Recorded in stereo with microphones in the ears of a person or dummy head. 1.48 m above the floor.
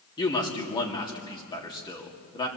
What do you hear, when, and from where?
0.2 s a man speaking: 30° left (ahead or behind), 2.5 m